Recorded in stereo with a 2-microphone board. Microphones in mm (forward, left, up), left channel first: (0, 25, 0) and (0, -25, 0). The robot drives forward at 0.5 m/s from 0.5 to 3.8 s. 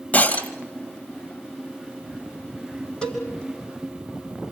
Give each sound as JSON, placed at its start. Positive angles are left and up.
{"t": 0.1, "sound": "breaking glass", "side_deg": 30, "distance_m": 2.0}
{"t": 3.0, "sound": "a cowbell", "side_deg": 15, "distance_m": 5.0}